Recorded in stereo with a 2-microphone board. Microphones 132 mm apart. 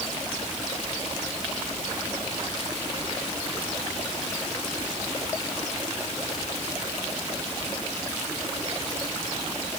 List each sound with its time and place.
Only background noise.